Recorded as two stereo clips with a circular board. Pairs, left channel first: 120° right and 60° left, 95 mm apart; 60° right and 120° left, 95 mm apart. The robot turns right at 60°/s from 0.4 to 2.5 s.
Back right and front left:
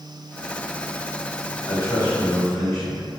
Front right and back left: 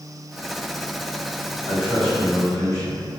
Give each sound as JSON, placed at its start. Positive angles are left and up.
{"t": 1.7, "sound": "a man speaking", "azimuth_deg": -160, "distance_m": 1.2}